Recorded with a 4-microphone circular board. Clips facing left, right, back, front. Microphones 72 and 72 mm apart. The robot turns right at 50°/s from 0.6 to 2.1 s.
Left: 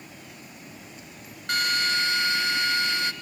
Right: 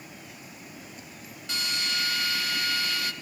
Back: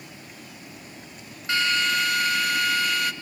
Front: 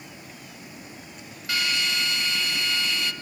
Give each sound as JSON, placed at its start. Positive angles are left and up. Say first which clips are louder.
{"t": 1.5, "sound": "a drill", "louder": "left 7 dB, back 4 dB", "azimuth_deg": 120, "distance_m": 1.6}